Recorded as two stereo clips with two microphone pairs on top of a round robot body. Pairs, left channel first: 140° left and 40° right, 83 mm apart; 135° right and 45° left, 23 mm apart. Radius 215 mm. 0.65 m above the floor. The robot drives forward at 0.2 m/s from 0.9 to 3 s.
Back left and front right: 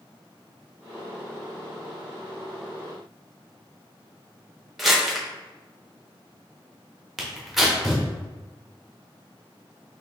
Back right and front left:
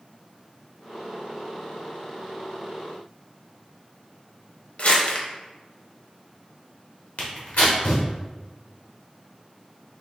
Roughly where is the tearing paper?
Behind right.